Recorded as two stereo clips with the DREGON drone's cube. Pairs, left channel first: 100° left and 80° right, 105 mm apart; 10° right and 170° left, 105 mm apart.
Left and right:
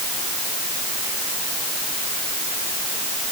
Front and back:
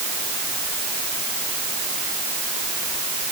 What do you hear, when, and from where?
Only background noise.